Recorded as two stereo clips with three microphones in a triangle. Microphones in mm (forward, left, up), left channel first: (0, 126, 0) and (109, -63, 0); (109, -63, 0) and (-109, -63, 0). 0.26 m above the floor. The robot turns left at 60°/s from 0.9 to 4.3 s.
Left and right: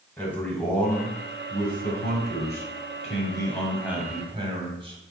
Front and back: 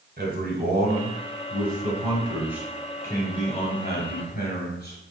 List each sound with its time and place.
0.2 s a man speaking: 160° right, 1.2 m; by 5.0 s 5° right, 1.2 m